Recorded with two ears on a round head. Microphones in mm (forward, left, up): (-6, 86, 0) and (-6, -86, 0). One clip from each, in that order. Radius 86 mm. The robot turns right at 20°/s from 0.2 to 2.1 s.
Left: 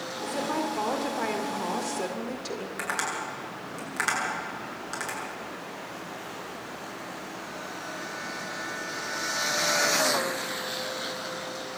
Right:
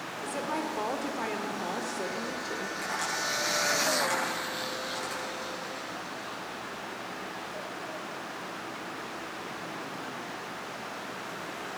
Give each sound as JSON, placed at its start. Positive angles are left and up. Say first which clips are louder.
{"t": 0.2, "sound": "a woman speaking", "louder": "left 3 dB", "azimuth_deg": -20, "distance_m": 2.0}
{"t": 2.8, "sound": "tapping", "louder": "left 2 dB", "side_deg": 60, "distance_m": 8.5}